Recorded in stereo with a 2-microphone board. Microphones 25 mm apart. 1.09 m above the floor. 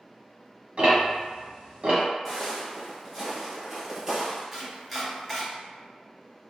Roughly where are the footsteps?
Centre.